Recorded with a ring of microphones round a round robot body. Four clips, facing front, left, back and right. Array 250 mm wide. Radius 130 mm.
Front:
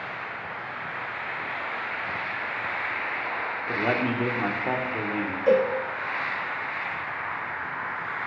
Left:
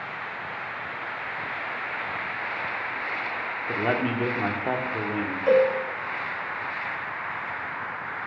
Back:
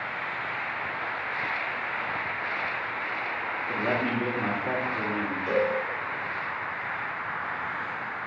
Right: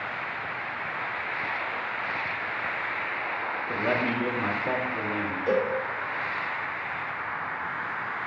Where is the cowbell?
25° left, 1.2 m.